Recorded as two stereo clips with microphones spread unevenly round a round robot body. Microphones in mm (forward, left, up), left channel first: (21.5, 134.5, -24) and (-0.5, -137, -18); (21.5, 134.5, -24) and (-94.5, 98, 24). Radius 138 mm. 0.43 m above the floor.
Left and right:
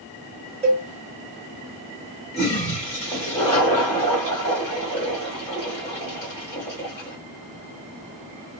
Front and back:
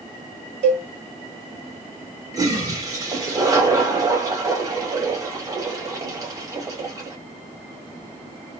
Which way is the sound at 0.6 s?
165° right.